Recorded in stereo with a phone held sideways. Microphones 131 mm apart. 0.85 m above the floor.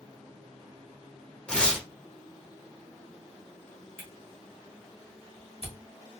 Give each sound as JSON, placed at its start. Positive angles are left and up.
{"t": 1.5, "sound": "tearing paper", "side_deg": 10, "distance_m": 0.9}
{"t": 4.0, "sound": "a camera shutter", "side_deg": -50, "distance_m": 1.2}